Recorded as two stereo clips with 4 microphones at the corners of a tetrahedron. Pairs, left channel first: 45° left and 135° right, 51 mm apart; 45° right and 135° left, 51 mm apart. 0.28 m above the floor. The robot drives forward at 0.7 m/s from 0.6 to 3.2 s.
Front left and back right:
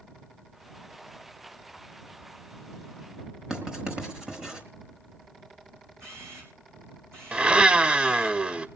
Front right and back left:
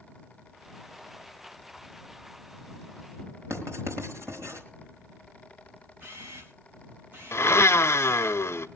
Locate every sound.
3.5 s writing: 155° left, 4 m
6.0 s a camera shutter: 170° right, 5 m
7.3 s a blender: 70° right, 0.6 m